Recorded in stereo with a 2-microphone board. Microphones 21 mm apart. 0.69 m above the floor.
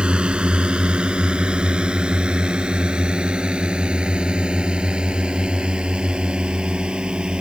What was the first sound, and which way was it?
A drone, 55° right (ahead or behind).